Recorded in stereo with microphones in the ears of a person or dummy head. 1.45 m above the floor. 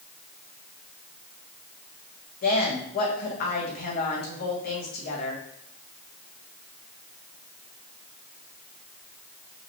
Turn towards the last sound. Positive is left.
turn(degrees=50)  # may be behind; listen again after turning